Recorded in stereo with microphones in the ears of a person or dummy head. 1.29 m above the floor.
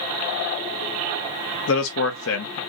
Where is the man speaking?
80° left, 0.9 m.